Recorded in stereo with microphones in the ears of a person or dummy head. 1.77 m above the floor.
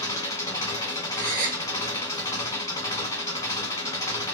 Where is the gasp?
50° right (ahead or behind), 1.2 m.